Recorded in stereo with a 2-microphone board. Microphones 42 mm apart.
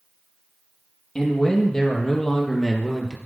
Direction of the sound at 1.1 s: 15° left (ahead or behind).